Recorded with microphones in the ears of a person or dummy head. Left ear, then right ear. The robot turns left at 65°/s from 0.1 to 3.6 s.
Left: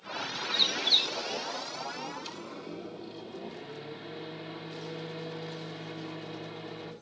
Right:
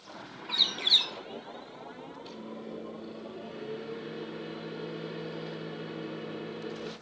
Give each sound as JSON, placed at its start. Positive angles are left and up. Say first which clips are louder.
{"t": 0.5, "sound": "a bird", "louder": "right 1 dB", "azimuth_deg": -15, "distance_m": 1.4}
{"t": 2.2, "sound": "a microwave", "louder": "left 2 dB", "azimuth_deg": 105, "distance_m": 2.5}